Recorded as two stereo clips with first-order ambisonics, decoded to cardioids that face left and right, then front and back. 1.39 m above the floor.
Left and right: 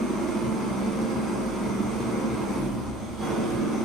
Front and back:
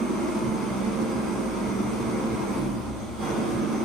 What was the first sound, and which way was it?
An engine running, 175° left.